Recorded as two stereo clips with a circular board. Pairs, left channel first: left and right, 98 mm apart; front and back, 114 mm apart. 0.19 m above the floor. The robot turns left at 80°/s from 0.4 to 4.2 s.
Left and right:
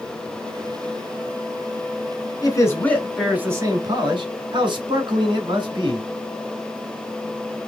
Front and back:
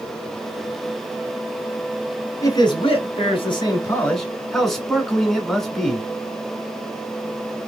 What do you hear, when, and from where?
2.4 s a man speaking: 55° left, 1.7 m; by 6.0 s 85° right, 1.7 m